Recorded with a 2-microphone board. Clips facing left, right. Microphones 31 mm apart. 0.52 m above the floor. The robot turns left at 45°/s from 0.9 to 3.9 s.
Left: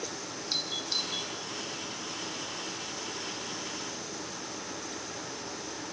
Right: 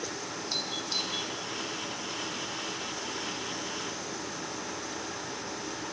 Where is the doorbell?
20° left (ahead or behind), 3 m; by 1.3 s 5° left (ahead or behind), 3 m.